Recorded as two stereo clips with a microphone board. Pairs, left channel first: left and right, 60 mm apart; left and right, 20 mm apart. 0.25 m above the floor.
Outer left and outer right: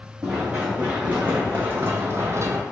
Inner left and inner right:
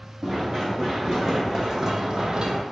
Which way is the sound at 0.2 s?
20° right (ahead or behind).